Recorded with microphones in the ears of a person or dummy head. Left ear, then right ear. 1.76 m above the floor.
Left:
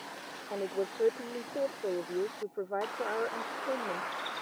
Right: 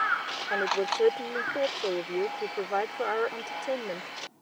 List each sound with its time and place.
0.5 s a woman speaking: 75° right (ahead or behind)